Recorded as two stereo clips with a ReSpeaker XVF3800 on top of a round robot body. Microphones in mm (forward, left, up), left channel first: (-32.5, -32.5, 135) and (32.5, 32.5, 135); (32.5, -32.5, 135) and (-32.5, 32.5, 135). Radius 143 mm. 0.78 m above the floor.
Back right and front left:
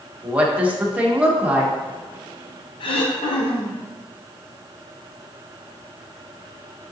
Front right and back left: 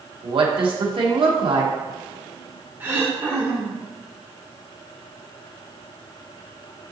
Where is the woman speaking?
120° left, 1.8 m.